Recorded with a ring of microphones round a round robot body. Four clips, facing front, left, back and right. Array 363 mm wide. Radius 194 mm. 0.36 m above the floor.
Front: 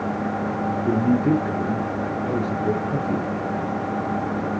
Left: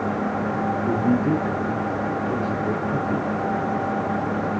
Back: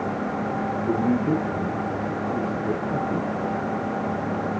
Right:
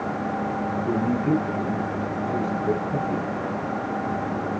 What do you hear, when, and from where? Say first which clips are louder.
0.9 s a man speaking: left 1 dB, front 3 dB; 5° left, 7 m